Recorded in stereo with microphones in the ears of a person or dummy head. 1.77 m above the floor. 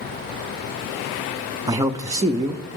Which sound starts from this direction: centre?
A man speaking, at 1.7 s.